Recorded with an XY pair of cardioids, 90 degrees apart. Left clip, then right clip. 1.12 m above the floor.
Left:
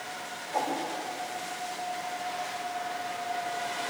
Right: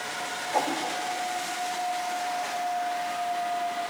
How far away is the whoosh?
About 1.2 m.